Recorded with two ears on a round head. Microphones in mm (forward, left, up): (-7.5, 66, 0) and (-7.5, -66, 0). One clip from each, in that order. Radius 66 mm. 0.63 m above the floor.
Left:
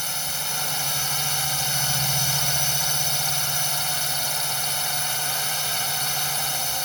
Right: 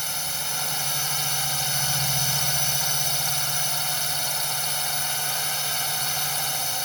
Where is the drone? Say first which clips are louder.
Left 1 dB; 5° right (ahead or behind).